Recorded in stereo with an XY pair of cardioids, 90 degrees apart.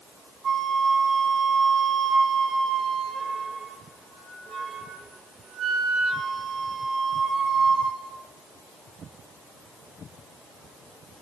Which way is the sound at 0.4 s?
65° right.